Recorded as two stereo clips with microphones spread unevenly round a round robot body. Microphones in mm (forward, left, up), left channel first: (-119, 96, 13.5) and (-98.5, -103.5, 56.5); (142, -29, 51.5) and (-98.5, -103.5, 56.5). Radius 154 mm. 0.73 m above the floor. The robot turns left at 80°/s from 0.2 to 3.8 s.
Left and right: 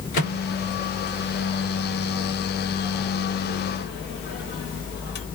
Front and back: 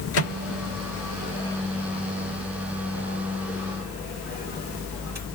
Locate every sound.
0.1 s a microwave: 45° left, 2 m; by 5.3 s 115° left, 2 m